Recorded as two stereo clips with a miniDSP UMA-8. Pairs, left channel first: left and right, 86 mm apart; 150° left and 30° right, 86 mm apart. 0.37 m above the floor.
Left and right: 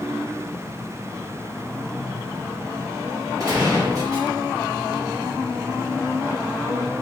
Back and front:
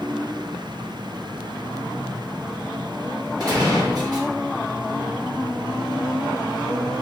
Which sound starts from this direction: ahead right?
A gunshot, at 3.4 s.